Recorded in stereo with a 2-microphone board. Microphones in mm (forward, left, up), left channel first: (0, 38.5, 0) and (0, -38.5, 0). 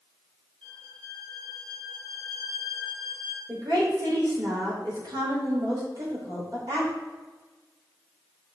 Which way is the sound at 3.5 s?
55° right (ahead or behind).